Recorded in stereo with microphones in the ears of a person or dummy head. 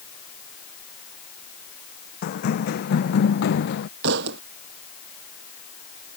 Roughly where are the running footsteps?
Left.